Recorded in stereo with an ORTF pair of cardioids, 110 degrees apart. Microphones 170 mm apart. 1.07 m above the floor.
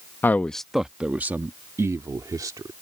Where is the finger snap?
I don't hear a finger snap.